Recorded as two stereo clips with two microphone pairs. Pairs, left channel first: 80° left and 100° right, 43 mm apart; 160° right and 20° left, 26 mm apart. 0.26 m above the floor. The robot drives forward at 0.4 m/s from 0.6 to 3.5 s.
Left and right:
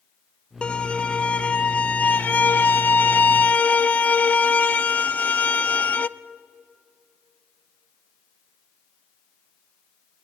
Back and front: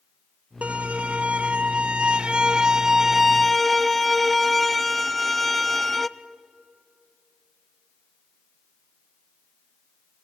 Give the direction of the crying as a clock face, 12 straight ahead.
No crying in this recording.